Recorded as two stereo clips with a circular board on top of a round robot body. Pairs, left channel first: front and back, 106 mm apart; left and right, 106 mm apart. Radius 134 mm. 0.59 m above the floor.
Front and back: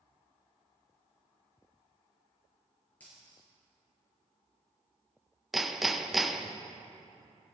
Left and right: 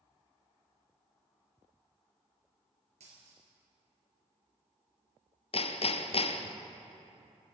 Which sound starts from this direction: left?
Hammering, at 5.5 s.